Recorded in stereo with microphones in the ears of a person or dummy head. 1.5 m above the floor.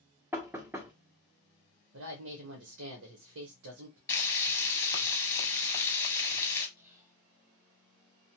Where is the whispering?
15° right (ahead or behind), 0.9 m.